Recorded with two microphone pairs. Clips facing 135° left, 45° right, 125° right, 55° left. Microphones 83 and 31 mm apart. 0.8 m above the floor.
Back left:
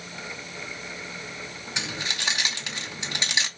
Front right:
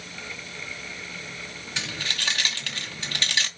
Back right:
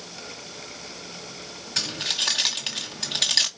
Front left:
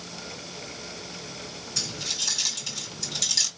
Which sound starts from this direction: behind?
Keys jangling, at 1.8 s.